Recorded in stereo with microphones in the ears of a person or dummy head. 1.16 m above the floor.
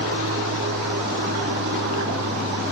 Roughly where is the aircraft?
Right.